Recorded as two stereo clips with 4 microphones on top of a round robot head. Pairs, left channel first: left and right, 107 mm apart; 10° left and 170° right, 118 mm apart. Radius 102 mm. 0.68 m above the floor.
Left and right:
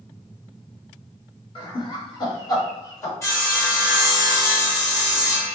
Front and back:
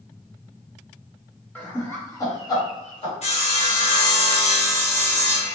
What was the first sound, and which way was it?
Laughter, 80° left.